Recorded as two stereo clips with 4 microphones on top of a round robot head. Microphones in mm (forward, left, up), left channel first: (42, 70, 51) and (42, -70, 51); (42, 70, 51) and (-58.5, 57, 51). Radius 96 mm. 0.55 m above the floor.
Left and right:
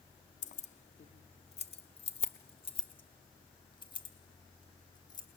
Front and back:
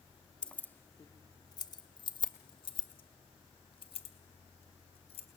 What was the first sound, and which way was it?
Keys jangling, 85° left.